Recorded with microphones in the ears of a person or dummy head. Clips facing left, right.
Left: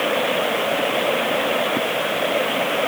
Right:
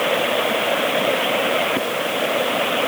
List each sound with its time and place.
Only background noise.